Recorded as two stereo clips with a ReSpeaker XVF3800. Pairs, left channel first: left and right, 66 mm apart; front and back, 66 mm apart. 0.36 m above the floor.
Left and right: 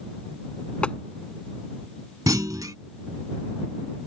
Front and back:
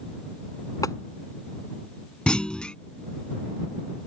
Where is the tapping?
20° left.